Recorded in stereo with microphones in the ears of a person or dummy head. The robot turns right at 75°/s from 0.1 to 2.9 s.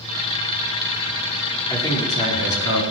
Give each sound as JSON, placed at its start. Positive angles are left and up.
{"t": 1.7, "sound": "a man speaking", "azimuth_deg": 10, "distance_m": 4.5}